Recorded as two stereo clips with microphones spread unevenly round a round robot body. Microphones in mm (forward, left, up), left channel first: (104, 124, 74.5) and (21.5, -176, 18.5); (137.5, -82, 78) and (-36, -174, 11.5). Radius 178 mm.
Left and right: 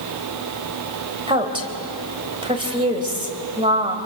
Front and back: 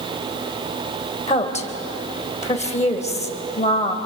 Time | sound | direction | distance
1.3 | a woman speaking | 35° right | 3.5 m